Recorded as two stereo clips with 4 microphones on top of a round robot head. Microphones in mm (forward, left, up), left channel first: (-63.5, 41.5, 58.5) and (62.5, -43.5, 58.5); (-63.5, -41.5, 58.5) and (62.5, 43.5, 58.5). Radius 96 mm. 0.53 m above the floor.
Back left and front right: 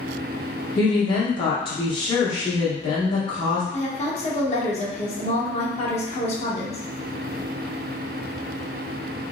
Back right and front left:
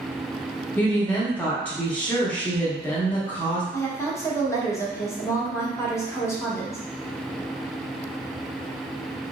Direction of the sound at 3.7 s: 150° left.